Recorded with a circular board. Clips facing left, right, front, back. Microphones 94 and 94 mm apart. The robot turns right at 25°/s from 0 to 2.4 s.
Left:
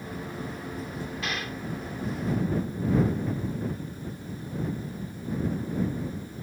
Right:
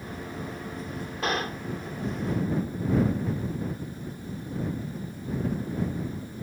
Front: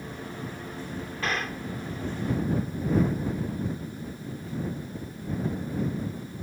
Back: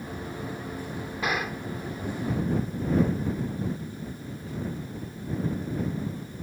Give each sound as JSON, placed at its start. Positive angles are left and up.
{"t": 1.2, "sound": "a gunshot", "azimuth_deg": -105}